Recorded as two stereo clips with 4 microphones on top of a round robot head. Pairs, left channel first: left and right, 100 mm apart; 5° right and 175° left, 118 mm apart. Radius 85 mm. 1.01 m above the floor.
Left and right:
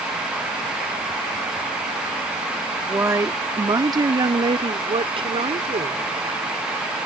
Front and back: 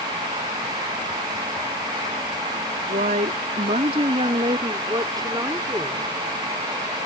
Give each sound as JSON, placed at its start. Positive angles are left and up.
{"t": 2.9, "sound": "a woman speaking", "azimuth_deg": -155}